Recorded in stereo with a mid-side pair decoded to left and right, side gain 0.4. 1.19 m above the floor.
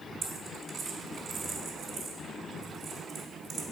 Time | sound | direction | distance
0.2 | a dropped coin | 60° right | 1.7 m